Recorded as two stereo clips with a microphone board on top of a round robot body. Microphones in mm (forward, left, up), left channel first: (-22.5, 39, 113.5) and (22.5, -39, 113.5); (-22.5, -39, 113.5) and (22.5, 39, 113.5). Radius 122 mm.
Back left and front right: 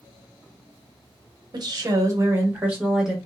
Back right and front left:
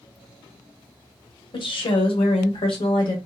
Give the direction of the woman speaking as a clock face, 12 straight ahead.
3 o'clock.